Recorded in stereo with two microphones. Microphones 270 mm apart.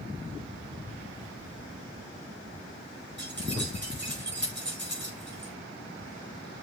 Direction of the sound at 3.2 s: 45° right (ahead or behind).